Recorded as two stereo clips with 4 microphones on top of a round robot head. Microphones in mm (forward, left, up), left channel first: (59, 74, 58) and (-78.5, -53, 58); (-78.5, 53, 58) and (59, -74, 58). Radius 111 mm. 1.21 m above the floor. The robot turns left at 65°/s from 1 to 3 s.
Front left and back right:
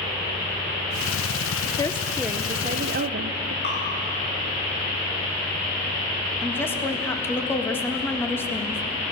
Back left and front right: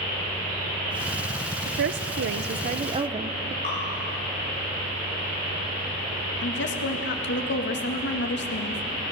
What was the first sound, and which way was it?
A woman speaking, 15° right.